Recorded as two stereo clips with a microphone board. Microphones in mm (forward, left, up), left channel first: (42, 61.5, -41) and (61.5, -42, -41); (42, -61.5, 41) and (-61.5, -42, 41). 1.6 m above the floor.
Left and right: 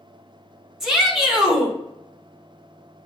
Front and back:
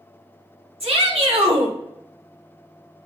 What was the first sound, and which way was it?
A shout, 165° right.